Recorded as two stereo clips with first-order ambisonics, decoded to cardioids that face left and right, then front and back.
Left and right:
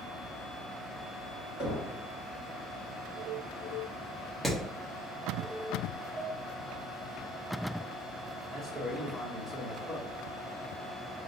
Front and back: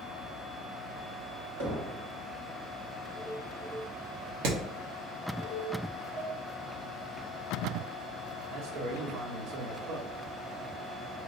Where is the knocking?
155° left, 2.0 m.